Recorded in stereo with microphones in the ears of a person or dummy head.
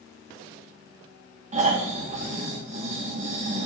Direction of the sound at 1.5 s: 40° right (ahead or behind).